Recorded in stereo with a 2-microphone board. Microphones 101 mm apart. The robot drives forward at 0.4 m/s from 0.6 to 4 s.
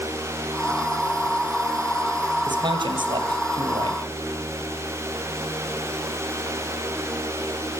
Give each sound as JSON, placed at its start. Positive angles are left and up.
{"t": 2.5, "sound": "a man speaking", "side_deg": -55, "distance_m": 3.0}